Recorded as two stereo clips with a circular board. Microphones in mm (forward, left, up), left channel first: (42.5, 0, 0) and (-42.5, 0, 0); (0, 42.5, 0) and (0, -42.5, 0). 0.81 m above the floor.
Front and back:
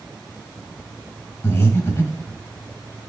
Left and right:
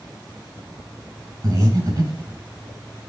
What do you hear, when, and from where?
1.4 s breathing: 55° right, 1.2 m